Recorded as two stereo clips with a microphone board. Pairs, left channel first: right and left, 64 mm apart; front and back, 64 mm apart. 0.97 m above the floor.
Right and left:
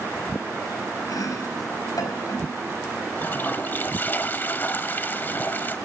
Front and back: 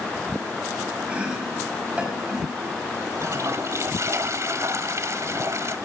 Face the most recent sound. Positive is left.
turn(degrees=-145)